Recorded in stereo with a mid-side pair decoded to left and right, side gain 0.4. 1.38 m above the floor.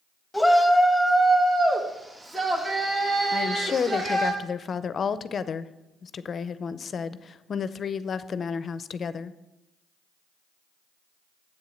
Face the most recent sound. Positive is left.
turn(degrees=50)